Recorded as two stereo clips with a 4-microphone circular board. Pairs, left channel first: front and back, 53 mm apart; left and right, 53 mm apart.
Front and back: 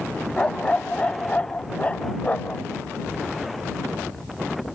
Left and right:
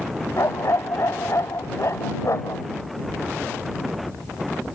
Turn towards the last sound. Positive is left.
turn(degrees=60)